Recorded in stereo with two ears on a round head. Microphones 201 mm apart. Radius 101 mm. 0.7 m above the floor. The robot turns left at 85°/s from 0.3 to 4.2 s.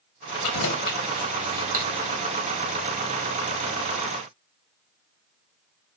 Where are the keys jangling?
80° left, 2.5 m; by 2.1 s 65° right (ahead or behind), 2.5 m.